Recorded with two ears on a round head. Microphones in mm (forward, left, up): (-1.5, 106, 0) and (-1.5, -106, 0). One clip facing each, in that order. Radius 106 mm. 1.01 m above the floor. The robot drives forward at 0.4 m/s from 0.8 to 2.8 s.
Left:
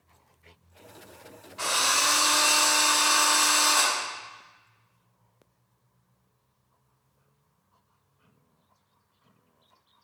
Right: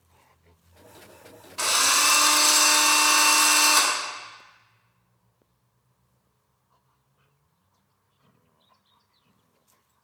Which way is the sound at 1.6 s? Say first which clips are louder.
Right 1 dB; 60° right (ahead or behind).